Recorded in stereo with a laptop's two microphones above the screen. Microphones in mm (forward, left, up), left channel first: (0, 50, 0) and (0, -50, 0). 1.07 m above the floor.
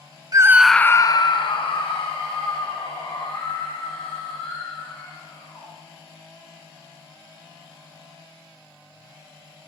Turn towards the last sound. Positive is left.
turn(degrees=80)